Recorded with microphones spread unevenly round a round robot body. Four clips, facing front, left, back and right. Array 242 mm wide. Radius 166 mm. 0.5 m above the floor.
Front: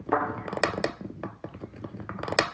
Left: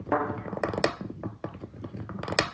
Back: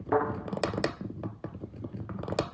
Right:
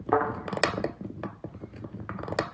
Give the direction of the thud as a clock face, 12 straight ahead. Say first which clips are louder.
Right 2 dB, front 1 dB; 8 o'clock.